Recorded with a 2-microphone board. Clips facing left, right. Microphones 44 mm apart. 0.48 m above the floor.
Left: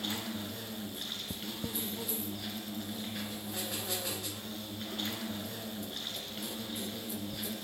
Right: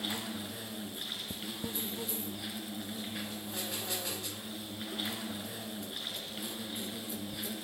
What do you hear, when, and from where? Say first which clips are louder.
0.0 s an insect: even; 10° right (ahead or behind), 2.0 m